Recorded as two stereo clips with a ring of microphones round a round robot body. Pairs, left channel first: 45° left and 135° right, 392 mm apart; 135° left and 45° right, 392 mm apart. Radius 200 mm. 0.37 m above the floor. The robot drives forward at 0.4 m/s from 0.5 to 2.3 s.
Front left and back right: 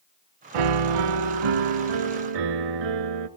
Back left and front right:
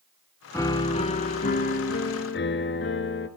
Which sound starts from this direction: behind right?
A piano, at 0.5 s.